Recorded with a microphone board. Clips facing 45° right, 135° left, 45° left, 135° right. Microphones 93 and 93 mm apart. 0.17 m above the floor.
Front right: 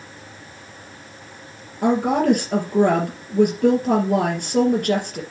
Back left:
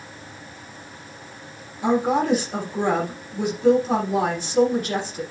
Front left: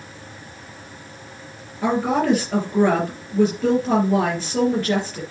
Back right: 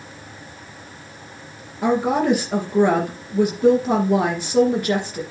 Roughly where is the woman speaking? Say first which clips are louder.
Front right 2 dB, back right 1 dB; ahead right.